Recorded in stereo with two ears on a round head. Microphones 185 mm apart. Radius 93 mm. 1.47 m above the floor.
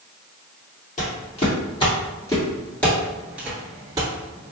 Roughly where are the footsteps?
Left.